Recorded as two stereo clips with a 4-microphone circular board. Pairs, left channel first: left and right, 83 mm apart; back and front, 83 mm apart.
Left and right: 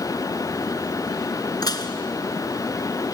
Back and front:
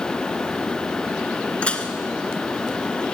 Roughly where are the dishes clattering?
Left.